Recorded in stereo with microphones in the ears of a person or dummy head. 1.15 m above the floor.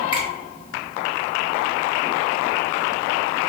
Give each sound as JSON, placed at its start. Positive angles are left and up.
{"t": 0.1, "sound": "a finger snap", "side_deg": 25, "distance_m": 1.2}